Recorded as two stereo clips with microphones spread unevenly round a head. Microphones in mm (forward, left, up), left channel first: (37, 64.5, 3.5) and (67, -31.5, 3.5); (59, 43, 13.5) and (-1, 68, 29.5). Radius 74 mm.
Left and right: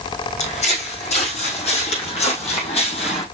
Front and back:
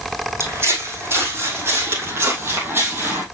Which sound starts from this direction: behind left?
Footsteps, at 0.4 s.